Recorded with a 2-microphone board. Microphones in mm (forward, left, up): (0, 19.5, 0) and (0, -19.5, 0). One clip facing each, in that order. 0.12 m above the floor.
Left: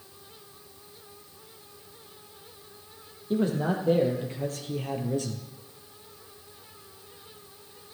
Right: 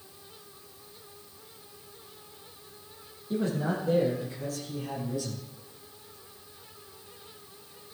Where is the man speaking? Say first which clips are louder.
Left 3 dB; 30° left (ahead or behind), 4.5 m; by 5.4 s 55° left (ahead or behind), 3 m.